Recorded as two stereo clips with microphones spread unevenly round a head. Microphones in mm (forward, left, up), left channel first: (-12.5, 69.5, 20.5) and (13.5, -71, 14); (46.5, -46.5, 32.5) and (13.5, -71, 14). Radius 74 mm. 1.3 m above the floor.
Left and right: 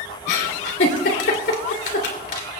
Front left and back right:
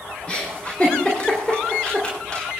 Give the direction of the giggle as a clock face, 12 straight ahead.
8 o'clock.